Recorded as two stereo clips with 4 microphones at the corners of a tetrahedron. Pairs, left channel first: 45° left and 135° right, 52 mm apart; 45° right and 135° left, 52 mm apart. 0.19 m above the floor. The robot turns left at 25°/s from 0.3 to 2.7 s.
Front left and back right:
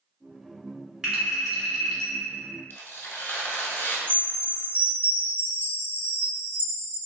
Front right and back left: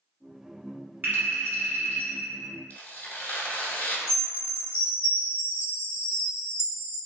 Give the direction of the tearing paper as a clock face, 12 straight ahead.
12 o'clock.